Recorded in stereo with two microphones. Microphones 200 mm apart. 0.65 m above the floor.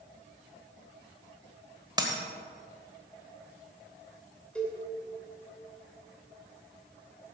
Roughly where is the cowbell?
Centre.